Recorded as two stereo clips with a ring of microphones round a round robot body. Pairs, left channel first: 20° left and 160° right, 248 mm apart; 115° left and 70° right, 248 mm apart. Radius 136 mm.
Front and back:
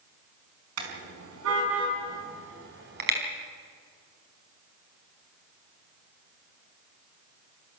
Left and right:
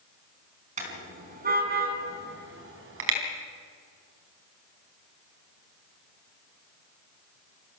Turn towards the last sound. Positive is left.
turn(degrees=-105)